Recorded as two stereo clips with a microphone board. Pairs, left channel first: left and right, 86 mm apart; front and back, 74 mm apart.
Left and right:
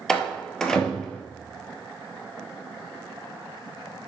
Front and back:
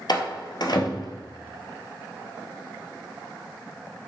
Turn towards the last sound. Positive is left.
turn(degrees=5)